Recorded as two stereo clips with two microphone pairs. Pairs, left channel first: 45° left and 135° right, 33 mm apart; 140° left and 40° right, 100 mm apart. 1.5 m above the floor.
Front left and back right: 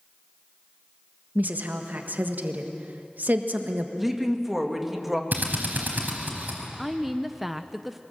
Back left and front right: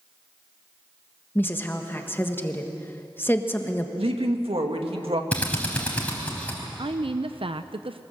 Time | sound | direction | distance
1.4 | a woman speaking | 150° right | 1.4 m
4.0 | a woman speaking | 45° right | 2 m
5.3 | a drill | 145° right | 4 m
6.8 | a woman speaking | 45° right | 0.7 m